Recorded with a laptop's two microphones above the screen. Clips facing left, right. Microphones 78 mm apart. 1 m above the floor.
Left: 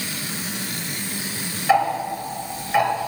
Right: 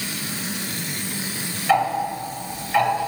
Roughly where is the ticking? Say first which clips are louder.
Left 1 dB; centre.